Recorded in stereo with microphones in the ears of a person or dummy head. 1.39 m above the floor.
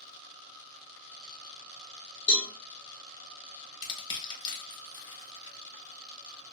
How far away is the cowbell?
About 1.1 m.